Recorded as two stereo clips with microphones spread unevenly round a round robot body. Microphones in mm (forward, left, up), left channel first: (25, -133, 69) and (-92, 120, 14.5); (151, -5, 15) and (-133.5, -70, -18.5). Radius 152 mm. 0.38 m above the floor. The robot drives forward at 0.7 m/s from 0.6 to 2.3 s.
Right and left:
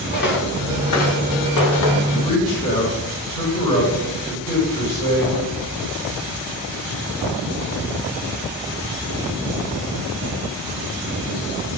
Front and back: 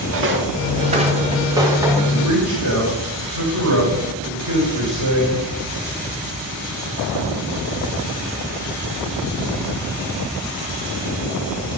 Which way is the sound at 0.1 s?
120° right.